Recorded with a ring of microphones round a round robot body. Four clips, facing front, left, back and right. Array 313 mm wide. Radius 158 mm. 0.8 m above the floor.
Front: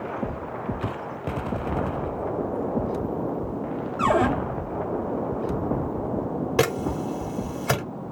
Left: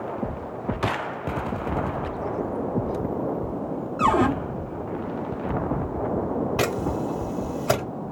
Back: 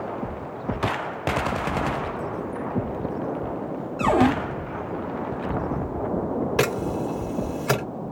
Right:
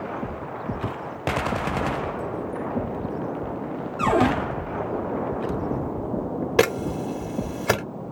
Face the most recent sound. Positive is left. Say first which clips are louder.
# right 3 dB, front 4 dB
turn(degrees=-95)